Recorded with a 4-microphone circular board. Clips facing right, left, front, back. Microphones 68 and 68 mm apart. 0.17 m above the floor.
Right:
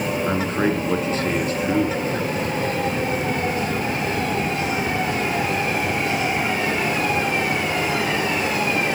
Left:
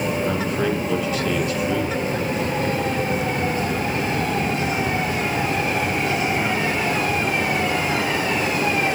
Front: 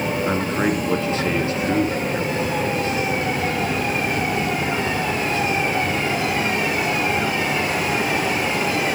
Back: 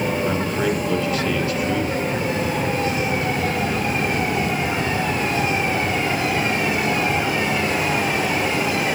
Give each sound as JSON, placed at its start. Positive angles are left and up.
{"t": 0.3, "sound": "a man speaking", "azimuth_deg": -50, "distance_m": 1.5}